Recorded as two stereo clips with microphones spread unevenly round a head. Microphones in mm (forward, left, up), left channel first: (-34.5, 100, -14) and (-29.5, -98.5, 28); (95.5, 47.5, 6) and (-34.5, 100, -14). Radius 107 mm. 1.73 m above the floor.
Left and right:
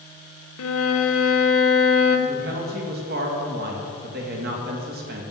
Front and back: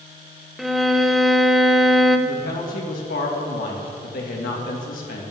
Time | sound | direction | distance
0.6 | a violin | 65° left | 1.1 m
2.3 | a woman speaking | 45° right | 2 m